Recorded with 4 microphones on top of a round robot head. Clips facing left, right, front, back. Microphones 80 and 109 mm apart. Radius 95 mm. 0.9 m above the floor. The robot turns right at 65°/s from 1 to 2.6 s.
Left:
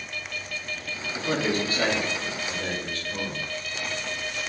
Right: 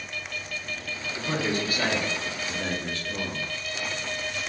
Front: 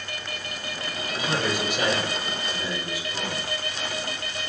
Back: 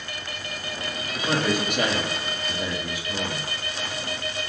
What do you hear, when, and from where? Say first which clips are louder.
1.1 s a man speaking: left 2 dB, back 3 dB; 120° left, 2 m; by 3.5 s 145° right, 2 m